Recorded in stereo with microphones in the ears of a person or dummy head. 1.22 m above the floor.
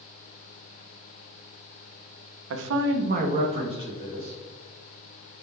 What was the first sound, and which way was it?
A man speaking, 75° right (ahead or behind).